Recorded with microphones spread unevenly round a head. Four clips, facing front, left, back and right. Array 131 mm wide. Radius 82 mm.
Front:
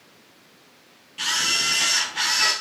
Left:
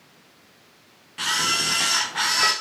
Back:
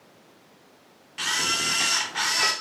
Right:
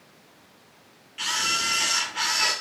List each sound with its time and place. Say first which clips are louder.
1.2 s a camera shutter: left 3 dB, even; 160° left, 2.5 m